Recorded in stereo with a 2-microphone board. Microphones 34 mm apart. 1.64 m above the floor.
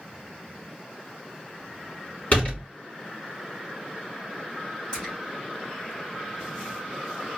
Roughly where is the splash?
Left.